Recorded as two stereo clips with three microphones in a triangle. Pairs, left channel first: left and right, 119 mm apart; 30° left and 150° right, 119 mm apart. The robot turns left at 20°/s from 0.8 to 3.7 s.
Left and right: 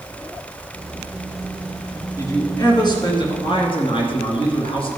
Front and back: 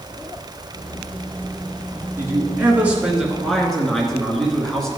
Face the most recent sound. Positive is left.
turn(degrees=115)